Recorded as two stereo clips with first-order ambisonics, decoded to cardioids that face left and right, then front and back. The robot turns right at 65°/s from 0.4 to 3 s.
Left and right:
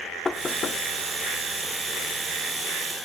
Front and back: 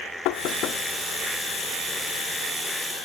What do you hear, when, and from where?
0.2 s knocking: 15° left, 0.7 m; by 0.8 s 45° left, 0.7 m